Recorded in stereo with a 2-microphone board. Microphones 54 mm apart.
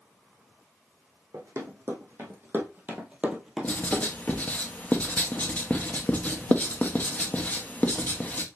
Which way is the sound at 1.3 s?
60° right (ahead or behind).